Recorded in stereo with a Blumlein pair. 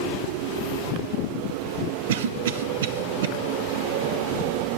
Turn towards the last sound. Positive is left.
turn(degrees=-55)